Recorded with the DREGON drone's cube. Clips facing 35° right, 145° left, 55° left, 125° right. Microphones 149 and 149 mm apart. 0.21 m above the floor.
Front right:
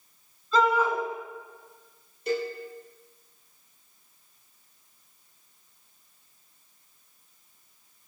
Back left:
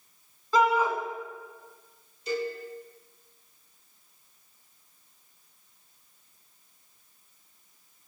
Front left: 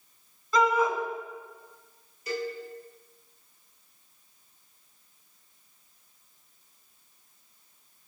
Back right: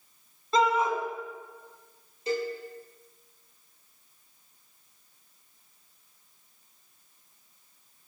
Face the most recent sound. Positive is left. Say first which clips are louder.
# front right 2 dB, back right 3 dB
turn(degrees=-60)